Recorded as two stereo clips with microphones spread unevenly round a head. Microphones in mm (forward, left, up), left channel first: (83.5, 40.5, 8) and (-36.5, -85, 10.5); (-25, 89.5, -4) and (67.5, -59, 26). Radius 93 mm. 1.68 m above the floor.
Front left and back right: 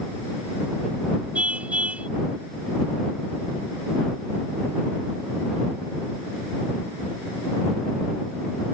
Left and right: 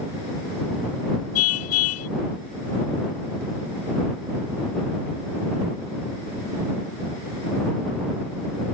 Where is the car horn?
140° left.